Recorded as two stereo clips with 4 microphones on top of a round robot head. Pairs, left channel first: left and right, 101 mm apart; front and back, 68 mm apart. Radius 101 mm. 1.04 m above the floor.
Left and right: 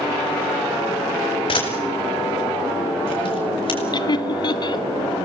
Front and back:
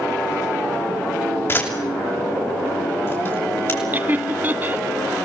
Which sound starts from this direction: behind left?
Laughter, at 3.9 s.